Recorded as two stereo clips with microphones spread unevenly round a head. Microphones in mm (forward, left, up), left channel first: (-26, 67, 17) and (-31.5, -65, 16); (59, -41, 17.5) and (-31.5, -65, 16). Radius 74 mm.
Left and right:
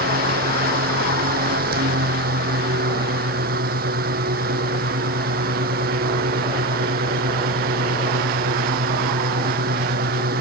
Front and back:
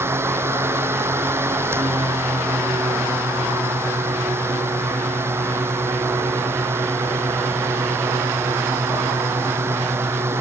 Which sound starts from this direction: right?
A fan, at 0.0 s.